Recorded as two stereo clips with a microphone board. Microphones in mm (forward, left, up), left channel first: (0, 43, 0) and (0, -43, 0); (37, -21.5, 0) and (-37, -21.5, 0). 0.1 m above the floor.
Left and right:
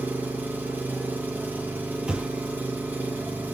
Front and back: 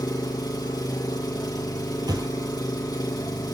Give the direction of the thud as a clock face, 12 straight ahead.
6 o'clock.